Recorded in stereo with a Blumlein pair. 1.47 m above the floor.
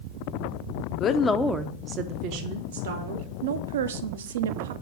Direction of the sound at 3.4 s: 60° right.